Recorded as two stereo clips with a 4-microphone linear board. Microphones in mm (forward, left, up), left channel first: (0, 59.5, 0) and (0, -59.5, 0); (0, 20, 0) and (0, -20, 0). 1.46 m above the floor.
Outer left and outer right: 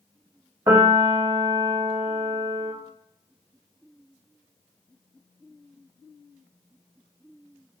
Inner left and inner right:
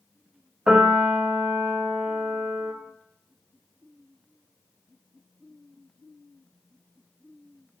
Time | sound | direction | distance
0.7 | a piano | 25° right (ahead or behind) | 1.5 m